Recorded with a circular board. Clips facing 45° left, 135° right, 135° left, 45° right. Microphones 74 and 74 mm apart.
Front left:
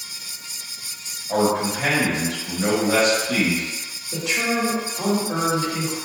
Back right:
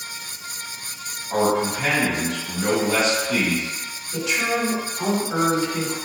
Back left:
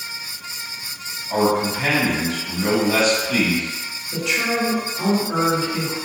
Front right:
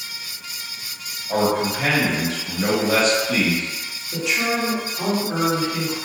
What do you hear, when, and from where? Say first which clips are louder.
1.3 s a man speaking: even, back left 1 dB; straight ahead, 1.2 m
4.1 s a man speaking: even, even; 40° left, 1.5 m